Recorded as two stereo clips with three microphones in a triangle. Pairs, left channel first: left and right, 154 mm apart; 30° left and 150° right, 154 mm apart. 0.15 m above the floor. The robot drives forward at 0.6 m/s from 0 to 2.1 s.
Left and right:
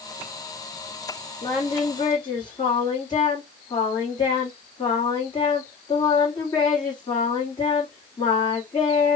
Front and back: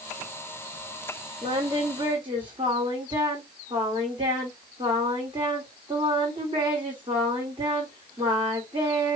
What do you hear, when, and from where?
1.4 s singing: 145° left, 1.1 m; by 9.2 s 155° left, 1.5 m